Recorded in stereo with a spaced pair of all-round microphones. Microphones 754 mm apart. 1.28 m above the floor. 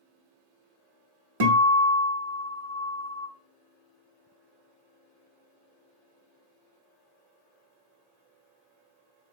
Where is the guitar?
40° right (ahead or behind), 1.1 m.